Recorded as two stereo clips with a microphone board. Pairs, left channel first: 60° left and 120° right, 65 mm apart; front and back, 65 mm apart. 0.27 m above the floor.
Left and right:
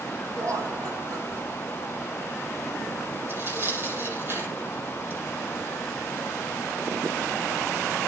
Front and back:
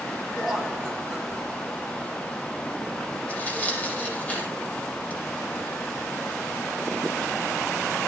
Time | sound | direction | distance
0.4 | laughter | 90° right | 4.5 m
3.3 | tearing paper | 65° right | 8 m